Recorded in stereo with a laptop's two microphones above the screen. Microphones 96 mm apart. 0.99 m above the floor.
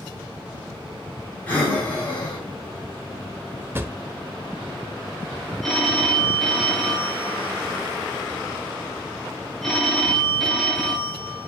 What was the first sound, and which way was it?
Breathing, 20° left (ahead or behind).